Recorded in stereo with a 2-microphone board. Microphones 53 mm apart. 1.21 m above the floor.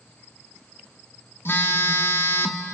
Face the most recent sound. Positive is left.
turn(degrees=45)  # may be behind; listen again after turning